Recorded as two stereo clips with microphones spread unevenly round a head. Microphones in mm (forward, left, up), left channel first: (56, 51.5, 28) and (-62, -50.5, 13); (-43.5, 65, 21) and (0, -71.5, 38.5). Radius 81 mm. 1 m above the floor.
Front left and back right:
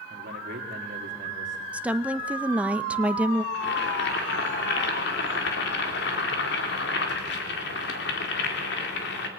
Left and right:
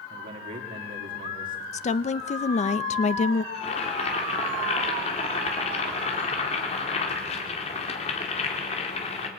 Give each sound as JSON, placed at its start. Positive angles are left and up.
{"t": 0.1, "sound": "a man speaking", "azimuth_deg": -100, "distance_m": 2.5}
{"t": 1.7, "sound": "a woman speaking", "azimuth_deg": 140, "distance_m": 0.7}
{"t": 3.5, "sound": "boiling", "azimuth_deg": 60, "distance_m": 3.0}